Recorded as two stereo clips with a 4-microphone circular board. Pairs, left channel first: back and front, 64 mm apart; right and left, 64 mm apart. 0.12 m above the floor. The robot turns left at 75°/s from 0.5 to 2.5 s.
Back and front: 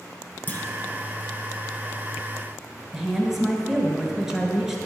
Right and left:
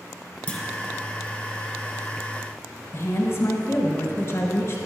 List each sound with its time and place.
0.5 s a clunk: 145° right, 1.1 m; by 0.6 s 155° right, 1.1 m
2.9 s a woman speaking: 80° right, 1.5 m